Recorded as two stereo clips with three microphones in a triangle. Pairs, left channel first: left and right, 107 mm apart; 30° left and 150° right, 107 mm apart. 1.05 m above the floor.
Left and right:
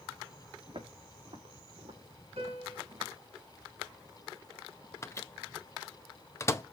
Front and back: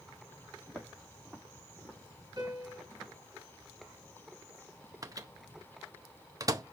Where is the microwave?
155° left, 0.7 m.